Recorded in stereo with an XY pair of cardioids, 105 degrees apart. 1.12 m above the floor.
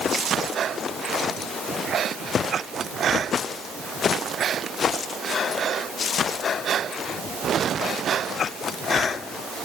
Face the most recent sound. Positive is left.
No sound to turn to.